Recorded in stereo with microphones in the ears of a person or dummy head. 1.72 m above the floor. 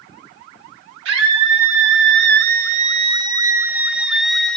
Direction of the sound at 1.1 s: 75° right (ahead or behind).